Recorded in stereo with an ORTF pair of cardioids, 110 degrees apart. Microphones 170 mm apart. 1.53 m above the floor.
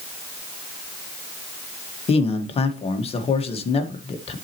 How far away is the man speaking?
About 1.6 m.